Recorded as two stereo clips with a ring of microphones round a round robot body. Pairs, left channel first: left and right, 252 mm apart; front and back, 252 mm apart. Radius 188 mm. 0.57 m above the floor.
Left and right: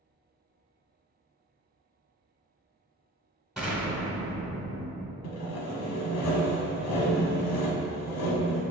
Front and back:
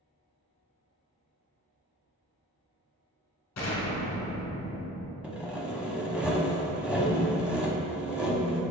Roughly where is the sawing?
Left.